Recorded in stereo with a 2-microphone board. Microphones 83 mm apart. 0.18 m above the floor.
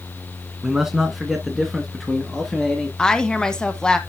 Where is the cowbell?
I don't hear a cowbell.